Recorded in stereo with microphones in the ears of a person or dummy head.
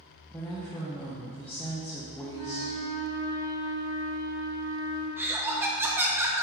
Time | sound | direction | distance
0.3 | a woman speaking | 10° left (ahead or behind) | 0.8 m
2.3 | a flute | 25° left (ahead or behind) | 1.7 m
5.2 | laughter | 10° right (ahead or behind) | 0.7 m